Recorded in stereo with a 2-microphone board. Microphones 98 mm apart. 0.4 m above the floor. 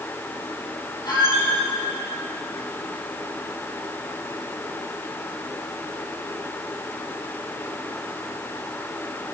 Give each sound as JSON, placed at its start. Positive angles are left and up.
{"t": 1.1, "sound": "a squeak", "side_deg": 45, "distance_m": 5.5}